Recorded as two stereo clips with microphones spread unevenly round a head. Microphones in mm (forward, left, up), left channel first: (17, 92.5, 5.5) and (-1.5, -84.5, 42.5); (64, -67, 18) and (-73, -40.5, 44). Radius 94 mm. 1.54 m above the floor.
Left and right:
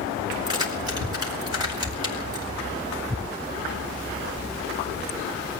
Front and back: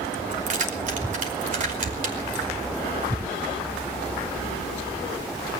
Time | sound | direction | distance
0.3 | keys jangling | 165° right | 5 m